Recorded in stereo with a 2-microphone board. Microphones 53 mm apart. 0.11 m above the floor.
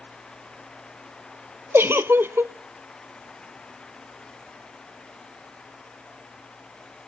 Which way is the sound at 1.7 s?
45° right (ahead or behind).